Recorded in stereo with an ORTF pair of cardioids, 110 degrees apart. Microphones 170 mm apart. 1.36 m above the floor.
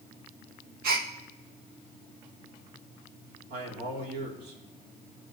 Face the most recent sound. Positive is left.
turn(degrees=-65)